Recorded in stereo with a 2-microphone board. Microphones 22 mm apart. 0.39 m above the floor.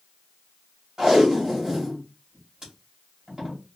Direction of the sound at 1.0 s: 30° right (ahead or behind).